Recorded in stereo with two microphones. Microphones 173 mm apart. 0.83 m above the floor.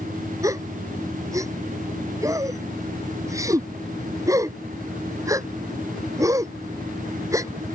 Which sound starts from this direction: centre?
A gasp, at 0.4 s.